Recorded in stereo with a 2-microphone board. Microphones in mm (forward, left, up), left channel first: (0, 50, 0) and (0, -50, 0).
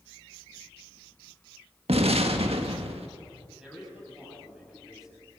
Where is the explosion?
80° right, 1.5 m.